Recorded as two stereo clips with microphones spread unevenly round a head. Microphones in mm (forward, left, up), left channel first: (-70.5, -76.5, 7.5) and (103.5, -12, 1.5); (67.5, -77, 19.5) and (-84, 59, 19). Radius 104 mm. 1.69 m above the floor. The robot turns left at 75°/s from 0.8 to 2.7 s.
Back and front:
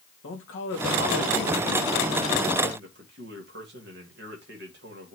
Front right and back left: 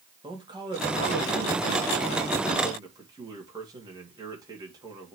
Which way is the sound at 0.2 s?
150° right.